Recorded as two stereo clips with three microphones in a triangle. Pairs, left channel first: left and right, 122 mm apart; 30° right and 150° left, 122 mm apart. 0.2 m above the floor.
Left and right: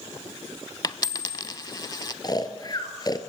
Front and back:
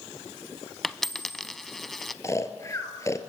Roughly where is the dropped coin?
Ahead left.